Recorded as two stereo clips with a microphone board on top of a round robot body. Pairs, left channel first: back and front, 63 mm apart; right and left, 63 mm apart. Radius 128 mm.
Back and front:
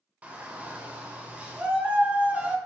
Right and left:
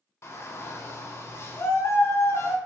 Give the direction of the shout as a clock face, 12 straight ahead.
2 o'clock.